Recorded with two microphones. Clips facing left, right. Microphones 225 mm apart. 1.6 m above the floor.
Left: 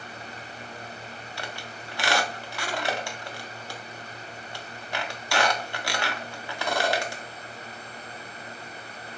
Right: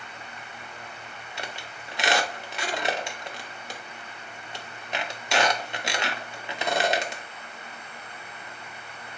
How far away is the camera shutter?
No camera shutter in this recording.